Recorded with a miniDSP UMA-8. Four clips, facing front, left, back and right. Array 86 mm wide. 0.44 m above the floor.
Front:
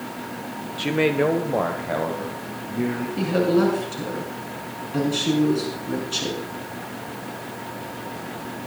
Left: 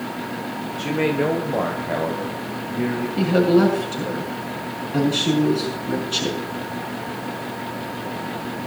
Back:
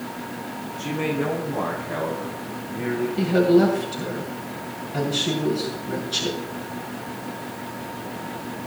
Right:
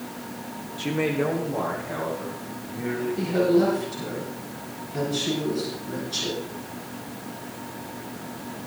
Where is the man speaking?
Straight ahead, 1.1 m; by 3.1 s 45° left, 3.5 m.